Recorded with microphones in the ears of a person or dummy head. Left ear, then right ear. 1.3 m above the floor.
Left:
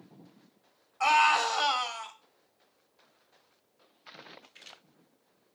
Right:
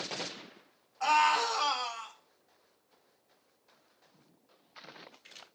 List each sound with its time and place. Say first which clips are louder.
1.0 s a scream: left 3 dB; 60° left (ahead or behind), 3 m; by 2.1 s 70° left (ahead or behind), 2.5 m